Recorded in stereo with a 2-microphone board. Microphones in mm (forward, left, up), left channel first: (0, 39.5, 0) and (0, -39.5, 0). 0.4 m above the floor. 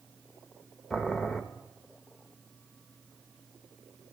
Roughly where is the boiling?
Centre.